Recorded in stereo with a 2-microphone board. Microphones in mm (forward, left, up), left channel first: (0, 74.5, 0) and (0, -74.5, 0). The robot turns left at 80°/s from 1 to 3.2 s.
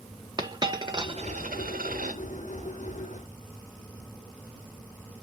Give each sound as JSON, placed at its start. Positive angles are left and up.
{"t": 0.4, "sound": "a dropped coin", "side_deg": -30, "distance_m": 1.3}